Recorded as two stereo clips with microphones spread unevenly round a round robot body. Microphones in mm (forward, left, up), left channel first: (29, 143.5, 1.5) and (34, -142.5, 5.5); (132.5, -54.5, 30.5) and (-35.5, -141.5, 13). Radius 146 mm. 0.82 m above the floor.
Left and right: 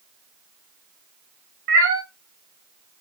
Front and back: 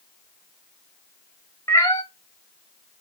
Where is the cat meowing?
45° right, 1.2 m.